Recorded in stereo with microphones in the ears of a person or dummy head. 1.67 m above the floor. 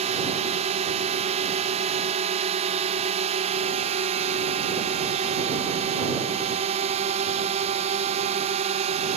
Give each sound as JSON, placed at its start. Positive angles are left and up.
{"t": 0.0, "sound": "a drone", "side_deg": -30}